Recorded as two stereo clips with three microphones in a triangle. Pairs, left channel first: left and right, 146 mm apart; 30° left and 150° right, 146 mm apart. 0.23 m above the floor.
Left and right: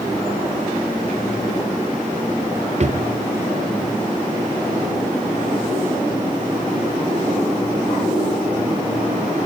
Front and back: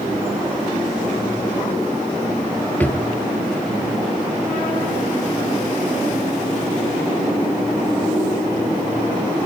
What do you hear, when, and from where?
2.8 s a drawer: 50° right, 1.2 m